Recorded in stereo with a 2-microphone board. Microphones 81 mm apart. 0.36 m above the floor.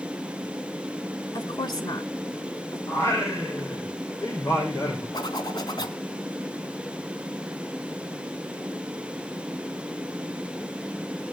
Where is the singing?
30° left (ahead or behind), 10 m.